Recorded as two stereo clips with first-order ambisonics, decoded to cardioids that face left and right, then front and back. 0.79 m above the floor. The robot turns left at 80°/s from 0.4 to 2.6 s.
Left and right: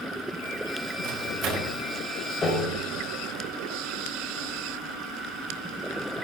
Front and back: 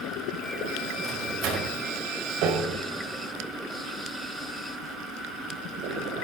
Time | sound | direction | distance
1.0 | a microwave | 100° right | 3.5 m
2.4 | a piano | 165° left | 2.5 m